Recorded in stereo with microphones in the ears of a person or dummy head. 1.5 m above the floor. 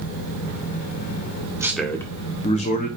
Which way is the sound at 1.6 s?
15° right (ahead or behind).